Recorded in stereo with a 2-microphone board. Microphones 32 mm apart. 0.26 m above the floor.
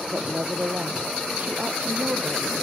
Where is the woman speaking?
50° right (ahead or behind).